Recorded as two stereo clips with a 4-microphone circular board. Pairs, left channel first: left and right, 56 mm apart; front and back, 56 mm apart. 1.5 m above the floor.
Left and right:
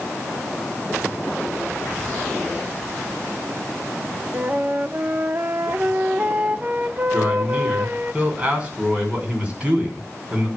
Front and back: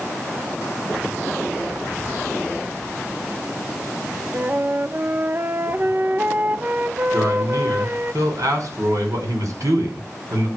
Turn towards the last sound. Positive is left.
turn(degrees=-155)